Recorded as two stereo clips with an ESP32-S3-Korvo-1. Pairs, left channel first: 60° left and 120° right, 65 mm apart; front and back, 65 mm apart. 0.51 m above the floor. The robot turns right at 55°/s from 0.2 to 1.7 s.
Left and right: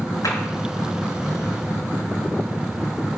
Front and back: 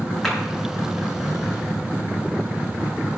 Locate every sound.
0.2 s a clap: 80° left, 5.5 m; by 0.4 s 85° left, 5.5 m